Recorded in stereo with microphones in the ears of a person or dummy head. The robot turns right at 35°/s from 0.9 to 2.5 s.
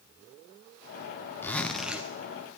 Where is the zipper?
10° left (ahead or behind), 0.6 m; by 2.1 s 10° right (ahead or behind), 0.6 m.